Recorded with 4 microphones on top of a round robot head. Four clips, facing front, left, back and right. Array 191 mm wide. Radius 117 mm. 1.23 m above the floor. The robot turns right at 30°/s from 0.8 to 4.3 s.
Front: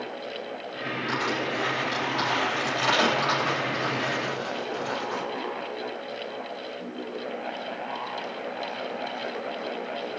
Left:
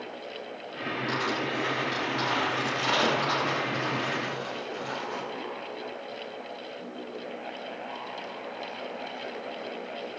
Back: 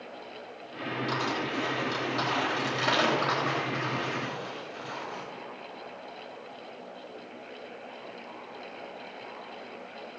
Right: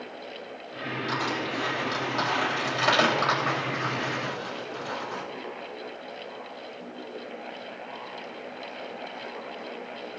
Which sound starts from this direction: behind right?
Crushing, at 1.1 s.